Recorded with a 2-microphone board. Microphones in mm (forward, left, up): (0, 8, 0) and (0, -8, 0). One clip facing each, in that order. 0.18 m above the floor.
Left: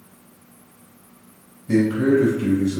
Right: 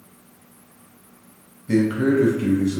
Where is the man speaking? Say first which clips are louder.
Left 1 dB; 35° right (ahead or behind), 1.2 m.